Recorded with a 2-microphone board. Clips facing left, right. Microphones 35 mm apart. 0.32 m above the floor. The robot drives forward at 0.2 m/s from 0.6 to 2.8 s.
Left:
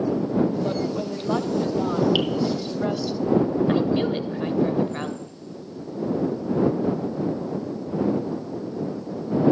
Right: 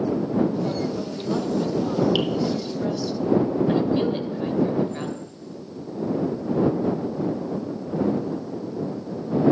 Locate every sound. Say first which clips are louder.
0.6 s a woman speaking: left 1 dB; 35° left (ahead or behind), 1.1 m; by 3.1 s 30° left (ahead or behind), 1.3 m
2.1 s dripping: left 1 dB; 10° left (ahead or behind), 1.3 m
3.7 s a woman speaking: even; 25° left (ahead or behind), 1.0 m